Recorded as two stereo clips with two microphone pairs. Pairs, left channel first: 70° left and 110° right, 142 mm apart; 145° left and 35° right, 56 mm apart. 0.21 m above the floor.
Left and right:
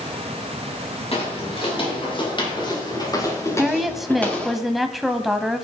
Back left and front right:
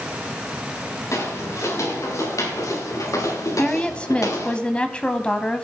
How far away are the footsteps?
About 7.5 m.